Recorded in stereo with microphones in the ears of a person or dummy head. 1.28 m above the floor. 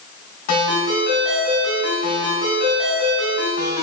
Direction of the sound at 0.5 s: 35° left (ahead or behind).